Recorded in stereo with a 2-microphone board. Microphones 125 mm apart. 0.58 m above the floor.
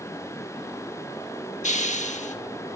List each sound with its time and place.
1.6 s a hiss: 80° left, 0.6 m